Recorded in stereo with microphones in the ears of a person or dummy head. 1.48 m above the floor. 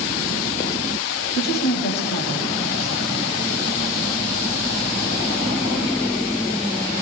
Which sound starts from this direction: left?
A woman speaking, at 1.4 s.